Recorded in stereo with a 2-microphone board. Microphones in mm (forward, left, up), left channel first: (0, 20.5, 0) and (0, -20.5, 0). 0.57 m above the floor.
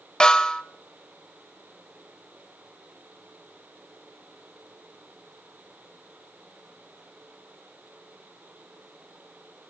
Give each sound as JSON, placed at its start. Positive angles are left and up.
{"t": 0.2, "sound": "a snare drum", "side_deg": 20, "distance_m": 0.9}